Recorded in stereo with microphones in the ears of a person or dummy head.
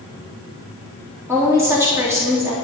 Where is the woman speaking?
15° right (ahead or behind), 3 m.